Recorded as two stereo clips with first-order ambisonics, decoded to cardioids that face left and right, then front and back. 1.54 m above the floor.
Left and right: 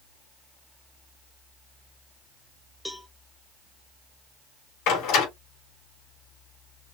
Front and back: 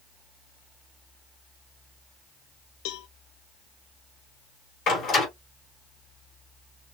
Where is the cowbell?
5° left, 0.5 m.